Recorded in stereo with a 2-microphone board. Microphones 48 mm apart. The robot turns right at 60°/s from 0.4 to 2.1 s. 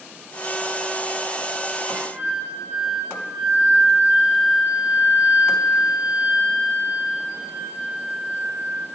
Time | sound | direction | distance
1.8 | a flute | 30° right (ahead or behind) | 3 m